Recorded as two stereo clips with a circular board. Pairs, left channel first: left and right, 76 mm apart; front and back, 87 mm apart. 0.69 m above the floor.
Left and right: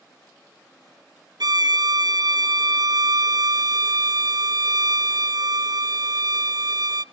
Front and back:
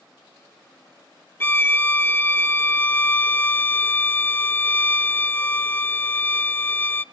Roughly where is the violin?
Ahead right.